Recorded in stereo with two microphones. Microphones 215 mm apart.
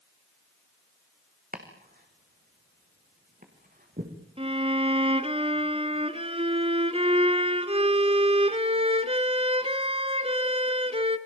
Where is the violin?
25° right (ahead or behind), 1.1 m.